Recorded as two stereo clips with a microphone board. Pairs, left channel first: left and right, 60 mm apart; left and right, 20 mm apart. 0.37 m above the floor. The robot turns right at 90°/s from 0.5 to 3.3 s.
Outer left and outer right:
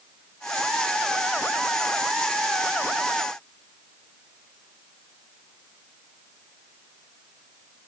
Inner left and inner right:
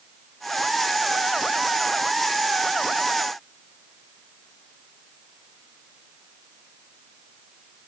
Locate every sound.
Only background noise.